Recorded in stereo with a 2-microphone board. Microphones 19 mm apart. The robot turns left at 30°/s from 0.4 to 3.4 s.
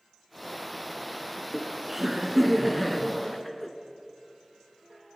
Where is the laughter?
130° right, 1.5 m; by 3.7 s 170° left, 1.5 m.